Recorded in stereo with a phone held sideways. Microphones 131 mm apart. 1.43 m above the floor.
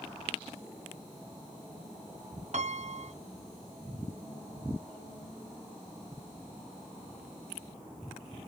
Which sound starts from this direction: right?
A piano, at 2.5 s.